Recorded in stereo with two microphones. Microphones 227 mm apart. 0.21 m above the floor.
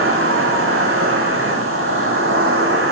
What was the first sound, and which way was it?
An insect, 75° right (ahead or behind).